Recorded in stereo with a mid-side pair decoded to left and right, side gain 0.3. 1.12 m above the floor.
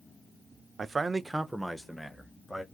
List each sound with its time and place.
0.8 s a man speaking: 60° right, 0.6 m; by 2.6 s 15° left, 1.5 m